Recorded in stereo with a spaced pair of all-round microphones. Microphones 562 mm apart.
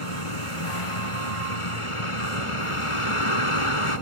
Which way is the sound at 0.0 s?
65° left (ahead or behind).